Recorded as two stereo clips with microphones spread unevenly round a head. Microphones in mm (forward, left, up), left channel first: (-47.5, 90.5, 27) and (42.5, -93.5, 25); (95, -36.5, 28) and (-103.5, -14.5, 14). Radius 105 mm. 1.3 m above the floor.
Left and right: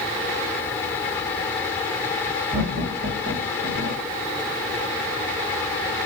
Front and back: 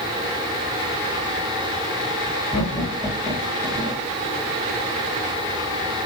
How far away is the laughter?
About 2.5 m.